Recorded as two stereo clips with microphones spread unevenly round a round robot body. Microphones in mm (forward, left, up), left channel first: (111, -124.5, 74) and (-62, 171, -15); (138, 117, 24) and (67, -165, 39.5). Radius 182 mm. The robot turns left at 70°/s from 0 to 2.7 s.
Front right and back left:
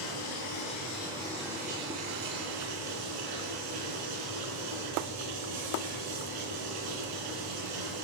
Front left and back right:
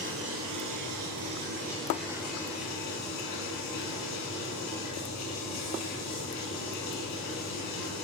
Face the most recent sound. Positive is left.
turn(degrees=120)